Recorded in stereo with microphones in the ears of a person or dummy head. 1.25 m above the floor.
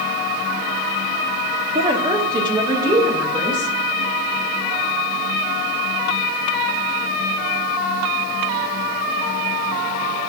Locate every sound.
1.8 s a woman speaking: 20° right (ahead or behind), 0.8 m; by 3.7 s 10° right (ahead or behind), 2.5 m